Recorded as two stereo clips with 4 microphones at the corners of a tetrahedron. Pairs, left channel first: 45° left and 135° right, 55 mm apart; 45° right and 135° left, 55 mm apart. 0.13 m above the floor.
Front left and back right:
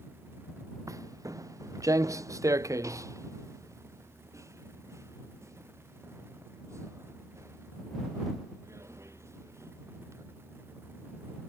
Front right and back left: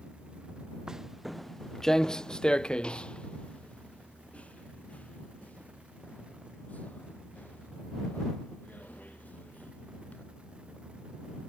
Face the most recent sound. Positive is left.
turn(degrees=-105)